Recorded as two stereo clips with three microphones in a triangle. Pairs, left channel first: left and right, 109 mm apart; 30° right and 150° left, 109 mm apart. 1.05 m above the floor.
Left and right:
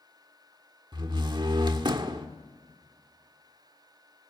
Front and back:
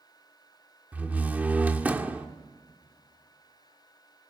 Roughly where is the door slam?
Behind right.